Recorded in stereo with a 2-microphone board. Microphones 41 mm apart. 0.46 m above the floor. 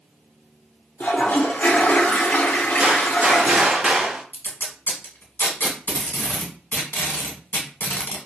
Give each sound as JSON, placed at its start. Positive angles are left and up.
{"t": 1.0, "sound": "a toilet flushing", "side_deg": 50, "distance_m": 0.5}
{"t": 2.8, "sound": "a gunshot", "side_deg": -35, "distance_m": 0.6}
{"t": 4.3, "sound": "tape being pulled", "side_deg": 60, "distance_m": 0.9}